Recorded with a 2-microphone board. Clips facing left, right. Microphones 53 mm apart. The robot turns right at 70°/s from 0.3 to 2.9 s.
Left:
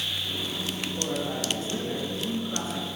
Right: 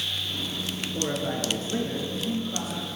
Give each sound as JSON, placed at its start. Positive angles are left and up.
{"t": 0.9, "sound": "a man speaking", "azimuth_deg": -85, "distance_m": 2.5}